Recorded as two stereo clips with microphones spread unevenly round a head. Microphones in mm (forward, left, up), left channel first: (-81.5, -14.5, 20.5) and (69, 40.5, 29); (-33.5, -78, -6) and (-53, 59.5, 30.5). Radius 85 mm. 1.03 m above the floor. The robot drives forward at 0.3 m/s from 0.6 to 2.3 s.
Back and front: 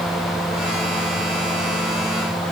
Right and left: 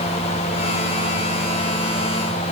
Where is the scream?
I don't hear a scream.